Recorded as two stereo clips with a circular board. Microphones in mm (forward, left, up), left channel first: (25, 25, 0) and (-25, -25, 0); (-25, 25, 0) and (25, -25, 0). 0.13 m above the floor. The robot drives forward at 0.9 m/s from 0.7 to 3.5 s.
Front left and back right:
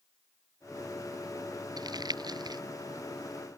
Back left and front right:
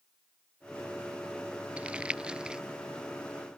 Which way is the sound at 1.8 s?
120° right.